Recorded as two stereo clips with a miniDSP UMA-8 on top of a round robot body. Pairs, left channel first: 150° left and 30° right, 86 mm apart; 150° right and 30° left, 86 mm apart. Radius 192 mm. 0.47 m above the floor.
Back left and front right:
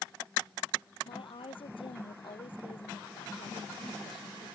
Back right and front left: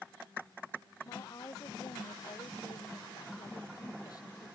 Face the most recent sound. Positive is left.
turn(degrees=165)